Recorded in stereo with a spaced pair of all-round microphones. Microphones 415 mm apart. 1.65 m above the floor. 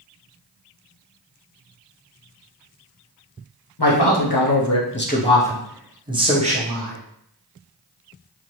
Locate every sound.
3.8 s a man speaking: 70° left (ahead or behind), 0.8 m; by 7.0 s 20° right (ahead or behind), 1.3 m